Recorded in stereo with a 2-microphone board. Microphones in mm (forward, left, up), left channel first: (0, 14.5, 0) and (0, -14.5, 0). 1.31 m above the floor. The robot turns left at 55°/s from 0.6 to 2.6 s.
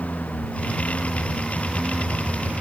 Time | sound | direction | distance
0.0 | a lawn mower | 65° left (ahead or behind) | ?